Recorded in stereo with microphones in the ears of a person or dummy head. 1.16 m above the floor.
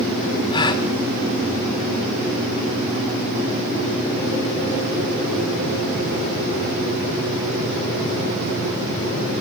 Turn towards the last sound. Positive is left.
turn(degrees=25)  # may be behind; listen again after turning